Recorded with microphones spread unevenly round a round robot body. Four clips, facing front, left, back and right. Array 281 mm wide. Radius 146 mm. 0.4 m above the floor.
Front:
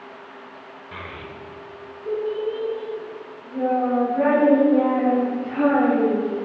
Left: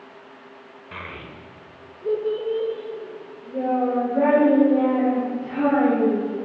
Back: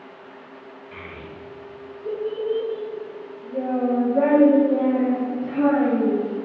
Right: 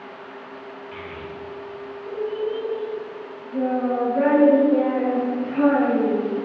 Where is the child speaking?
55° left, 1.1 m; by 6.3 s straight behind, 3.5 m.